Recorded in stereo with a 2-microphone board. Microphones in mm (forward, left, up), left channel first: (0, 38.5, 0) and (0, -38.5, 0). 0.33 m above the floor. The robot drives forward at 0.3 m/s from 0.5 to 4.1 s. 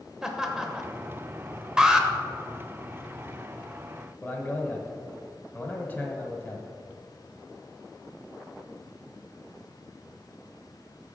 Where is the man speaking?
25° left (ahead or behind), 1.2 m.